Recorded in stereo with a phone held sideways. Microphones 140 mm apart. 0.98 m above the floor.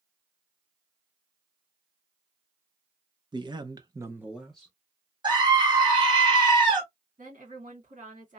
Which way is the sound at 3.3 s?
35° right (ahead or behind).